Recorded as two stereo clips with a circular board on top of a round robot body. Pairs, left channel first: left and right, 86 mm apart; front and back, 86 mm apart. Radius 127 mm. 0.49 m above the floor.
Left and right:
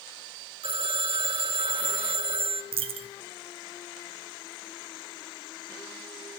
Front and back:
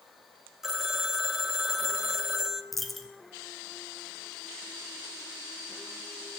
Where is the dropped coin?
90° right, 1.2 m.